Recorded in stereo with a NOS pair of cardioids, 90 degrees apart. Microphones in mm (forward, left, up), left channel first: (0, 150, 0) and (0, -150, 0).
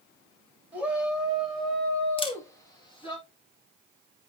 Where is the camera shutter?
15° left, 1.7 m.